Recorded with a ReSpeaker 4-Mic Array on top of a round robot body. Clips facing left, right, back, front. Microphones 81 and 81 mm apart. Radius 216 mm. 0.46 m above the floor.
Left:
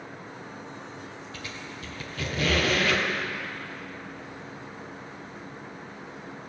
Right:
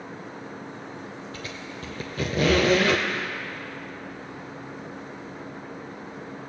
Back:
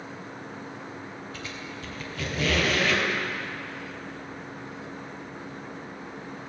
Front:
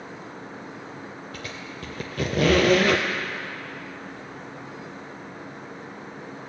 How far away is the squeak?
About 0.8 m.